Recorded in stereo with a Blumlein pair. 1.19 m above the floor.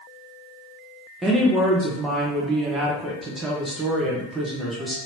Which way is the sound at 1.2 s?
15° right.